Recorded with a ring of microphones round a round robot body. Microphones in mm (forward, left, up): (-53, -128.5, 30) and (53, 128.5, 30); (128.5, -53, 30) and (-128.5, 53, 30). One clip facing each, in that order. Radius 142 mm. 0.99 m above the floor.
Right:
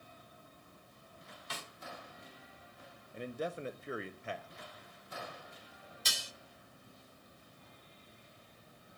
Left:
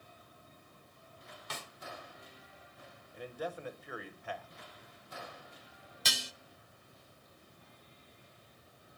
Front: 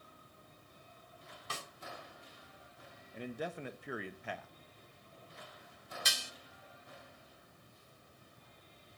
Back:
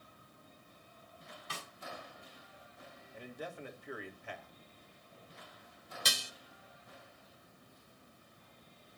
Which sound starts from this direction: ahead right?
A man speaking, at 3.1 s.